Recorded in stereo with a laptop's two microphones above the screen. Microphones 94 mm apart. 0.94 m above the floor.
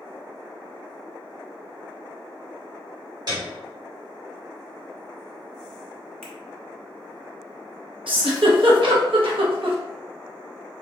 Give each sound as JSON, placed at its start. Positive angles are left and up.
{"t": 3.3, "sound": "a piano", "side_deg": -50, "distance_m": 1.3}
{"t": 6.2, "sound": "a finger snap", "side_deg": 5, "distance_m": 1.3}
{"t": 8.1, "sound": "a giggle", "side_deg": -70, "distance_m": 0.8}